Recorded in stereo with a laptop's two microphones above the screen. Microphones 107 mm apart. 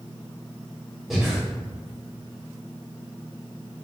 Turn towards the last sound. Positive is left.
turn(degrees=0)  # may be behind; listen again after turning